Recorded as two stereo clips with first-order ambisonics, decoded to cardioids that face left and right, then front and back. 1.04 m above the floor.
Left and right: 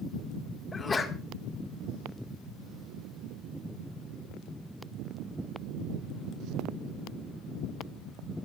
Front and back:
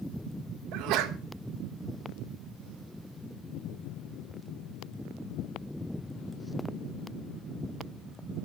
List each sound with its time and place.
0.7 s a sneeze: 165° left, 1.4 m